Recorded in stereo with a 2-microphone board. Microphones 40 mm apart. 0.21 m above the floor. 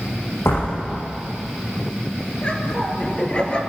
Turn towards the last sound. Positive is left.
turn(degrees=25)  # may be behind; listen again after turning